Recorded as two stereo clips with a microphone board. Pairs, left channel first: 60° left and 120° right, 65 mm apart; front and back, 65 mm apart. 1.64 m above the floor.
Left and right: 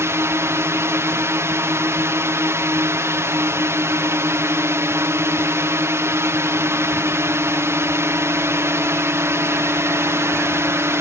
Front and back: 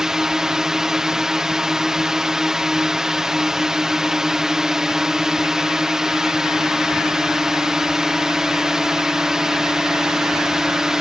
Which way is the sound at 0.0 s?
100° right.